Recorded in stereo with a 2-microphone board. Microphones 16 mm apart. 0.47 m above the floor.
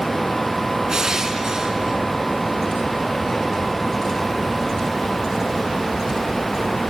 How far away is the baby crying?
No baby crying in this recording.